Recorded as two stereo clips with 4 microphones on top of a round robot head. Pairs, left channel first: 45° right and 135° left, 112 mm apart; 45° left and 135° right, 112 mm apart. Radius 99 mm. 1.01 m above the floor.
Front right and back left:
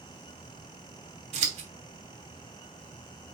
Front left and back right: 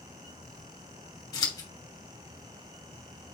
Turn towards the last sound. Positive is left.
turn(degrees=110)